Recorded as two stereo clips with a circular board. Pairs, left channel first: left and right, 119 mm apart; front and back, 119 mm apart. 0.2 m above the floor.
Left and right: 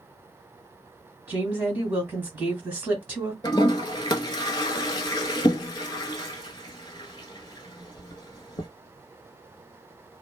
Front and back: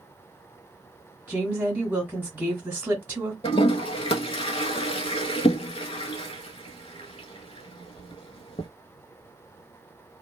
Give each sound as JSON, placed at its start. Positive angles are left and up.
{"t": 1.3, "sound": "a woman speaking", "azimuth_deg": -135, "distance_m": 1.5}
{"t": 3.4, "sound": "a toilet flushing", "azimuth_deg": 40, "distance_m": 0.6}